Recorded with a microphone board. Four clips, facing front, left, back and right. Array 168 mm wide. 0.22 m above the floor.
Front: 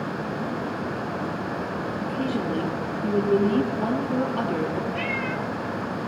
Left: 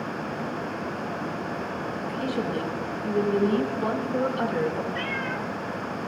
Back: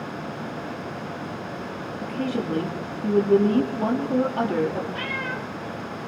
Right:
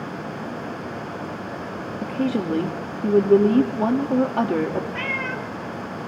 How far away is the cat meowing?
About 1.9 m.